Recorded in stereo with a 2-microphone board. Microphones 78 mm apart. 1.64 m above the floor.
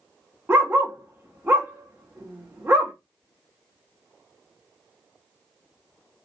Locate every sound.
0.5 s a dog barking: 25° right (ahead or behind), 1.1 m